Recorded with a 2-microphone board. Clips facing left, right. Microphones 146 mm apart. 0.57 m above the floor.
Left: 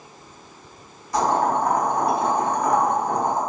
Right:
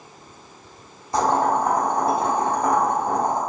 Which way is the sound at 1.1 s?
30° right (ahead or behind).